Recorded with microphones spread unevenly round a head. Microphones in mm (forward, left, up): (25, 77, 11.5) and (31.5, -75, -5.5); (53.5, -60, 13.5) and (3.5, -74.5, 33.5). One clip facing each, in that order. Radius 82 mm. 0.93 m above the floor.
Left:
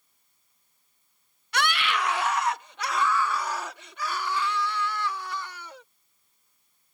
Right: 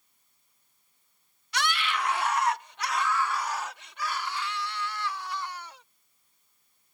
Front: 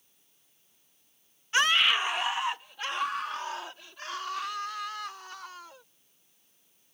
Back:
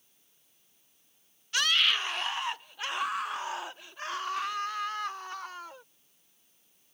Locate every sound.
1.5 s a scream: 60° left; by 5.8 s 120° left